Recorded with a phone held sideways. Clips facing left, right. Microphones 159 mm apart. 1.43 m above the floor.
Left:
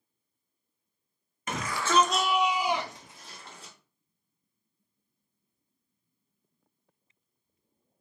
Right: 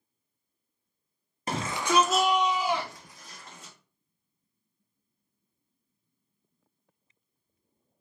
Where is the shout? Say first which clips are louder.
Right 1 dB; 40° right (ahead or behind), 0.6 m; by 3.7 s 35° left (ahead or behind), 1.4 m.